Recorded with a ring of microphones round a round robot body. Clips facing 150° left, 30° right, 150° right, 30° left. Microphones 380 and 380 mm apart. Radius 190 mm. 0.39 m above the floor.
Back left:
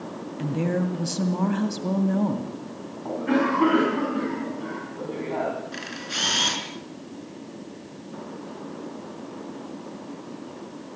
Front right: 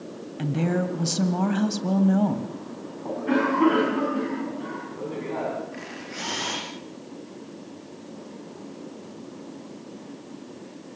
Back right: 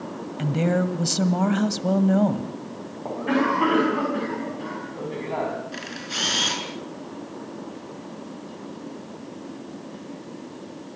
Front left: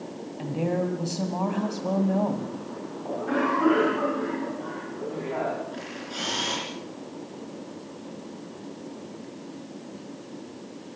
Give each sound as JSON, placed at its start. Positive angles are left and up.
{"t": 0.4, "sound": "a woman speaking", "azimuth_deg": -110, "distance_m": 1.9}
{"t": 3.0, "sound": "a cough", "azimuth_deg": -125, "distance_m": 4.5}
{"t": 5.7, "sound": "a camera shutter", "azimuth_deg": 175, "distance_m": 5.5}